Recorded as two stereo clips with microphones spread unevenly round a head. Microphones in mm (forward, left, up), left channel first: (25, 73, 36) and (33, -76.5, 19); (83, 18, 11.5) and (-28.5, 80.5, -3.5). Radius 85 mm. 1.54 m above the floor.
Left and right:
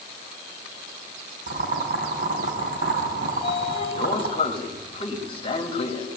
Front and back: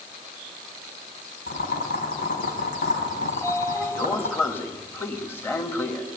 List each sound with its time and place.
1.5 s boiling: 50° right, 5 m
3.3 s a sliding door: 40° left, 2.5 m